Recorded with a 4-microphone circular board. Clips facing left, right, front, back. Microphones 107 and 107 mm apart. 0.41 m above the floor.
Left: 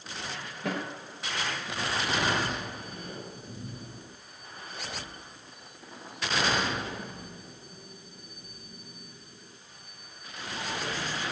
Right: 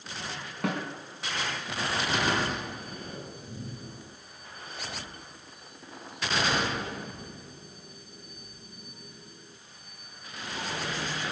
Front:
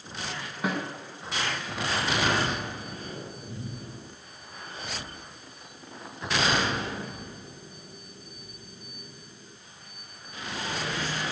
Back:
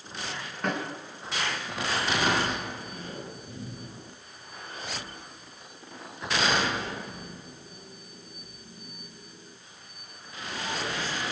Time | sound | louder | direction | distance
0.6 | a snare drum | right 2 dB, even | 85° right | 5 m